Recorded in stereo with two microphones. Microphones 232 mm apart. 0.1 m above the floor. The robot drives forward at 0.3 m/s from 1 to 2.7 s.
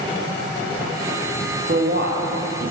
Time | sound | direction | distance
1.7 | a man speaking | 40° right (ahead or behind) | 2.5 m